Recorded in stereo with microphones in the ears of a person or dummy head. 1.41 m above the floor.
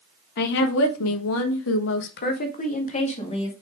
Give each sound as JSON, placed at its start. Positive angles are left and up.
{"t": 0.4, "sound": "a woman speaking", "side_deg": 55, "distance_m": 1.5}